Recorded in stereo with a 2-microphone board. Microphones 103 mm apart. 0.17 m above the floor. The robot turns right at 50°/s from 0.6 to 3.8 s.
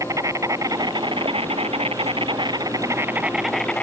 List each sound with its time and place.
0.0 s an insect: 145° right; by 3.8 s 15° left